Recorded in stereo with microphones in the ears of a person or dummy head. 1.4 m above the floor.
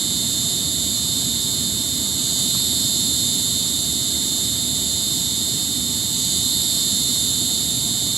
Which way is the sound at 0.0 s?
Centre (ahead or behind).